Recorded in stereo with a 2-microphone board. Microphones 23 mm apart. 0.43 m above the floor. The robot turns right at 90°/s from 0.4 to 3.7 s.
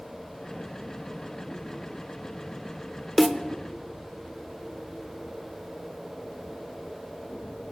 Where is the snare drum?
Centre (ahead or behind), 0.7 m; by 3.4 s 10° right (ahead or behind), 0.7 m.